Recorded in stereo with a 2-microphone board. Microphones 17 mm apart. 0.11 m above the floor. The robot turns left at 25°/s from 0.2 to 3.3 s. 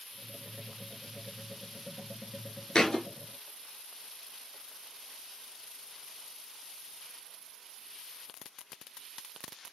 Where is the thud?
45° left (ahead or behind), 0.7 m.